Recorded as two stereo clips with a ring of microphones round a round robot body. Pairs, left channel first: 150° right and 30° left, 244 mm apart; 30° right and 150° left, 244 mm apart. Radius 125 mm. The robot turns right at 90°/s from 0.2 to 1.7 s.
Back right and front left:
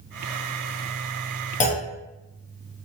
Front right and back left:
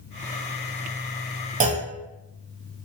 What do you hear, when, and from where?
1.6 s a clunk: straight behind, 0.6 m; by 1.9 s 175° right, 0.6 m